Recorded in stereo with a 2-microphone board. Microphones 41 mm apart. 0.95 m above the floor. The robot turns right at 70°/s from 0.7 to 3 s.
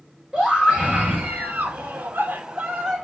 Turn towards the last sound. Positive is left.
turn(degrees=0)